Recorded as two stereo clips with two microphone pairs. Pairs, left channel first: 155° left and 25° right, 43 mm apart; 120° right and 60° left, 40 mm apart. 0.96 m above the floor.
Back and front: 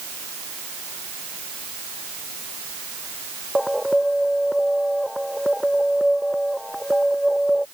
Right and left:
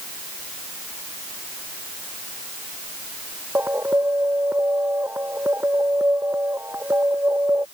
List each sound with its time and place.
3.5 s an alarm: 65° left